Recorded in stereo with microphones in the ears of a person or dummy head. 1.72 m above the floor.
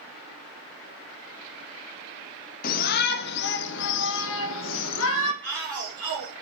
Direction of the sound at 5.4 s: 5° left (ahead or behind).